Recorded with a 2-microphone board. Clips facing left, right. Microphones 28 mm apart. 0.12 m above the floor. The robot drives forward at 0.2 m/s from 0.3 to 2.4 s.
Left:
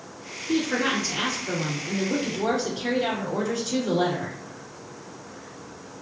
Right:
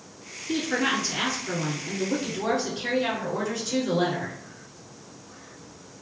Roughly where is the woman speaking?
Centre.